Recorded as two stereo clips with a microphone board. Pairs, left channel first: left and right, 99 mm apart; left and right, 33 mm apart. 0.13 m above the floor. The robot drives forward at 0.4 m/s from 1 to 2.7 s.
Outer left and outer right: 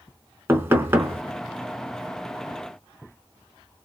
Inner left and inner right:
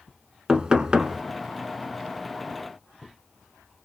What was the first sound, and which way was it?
Knocking, 25° right (ahead or behind).